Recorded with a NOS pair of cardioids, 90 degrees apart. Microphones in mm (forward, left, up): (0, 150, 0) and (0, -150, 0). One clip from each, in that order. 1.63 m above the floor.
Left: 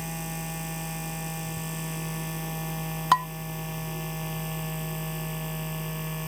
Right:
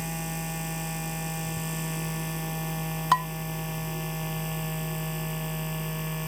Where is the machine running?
25° right.